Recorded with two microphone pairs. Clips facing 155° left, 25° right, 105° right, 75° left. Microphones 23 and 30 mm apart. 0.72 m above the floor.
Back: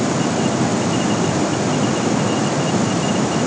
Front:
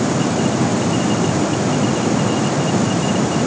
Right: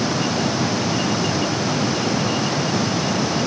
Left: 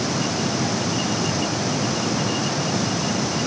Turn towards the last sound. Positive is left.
No sound to turn to.